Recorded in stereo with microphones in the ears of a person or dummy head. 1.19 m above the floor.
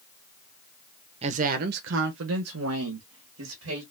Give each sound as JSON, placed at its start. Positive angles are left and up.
{"t": 1.2, "sound": "a woman speaking", "side_deg": -35, "distance_m": 0.7}